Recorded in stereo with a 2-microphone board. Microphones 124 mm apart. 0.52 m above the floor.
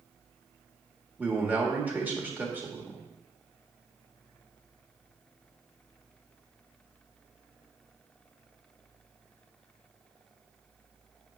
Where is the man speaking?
15° right (ahead or behind), 1.3 m.